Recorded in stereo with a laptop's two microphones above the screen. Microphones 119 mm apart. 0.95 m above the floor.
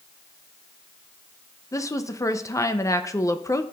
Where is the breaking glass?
No breaking glass in this recording.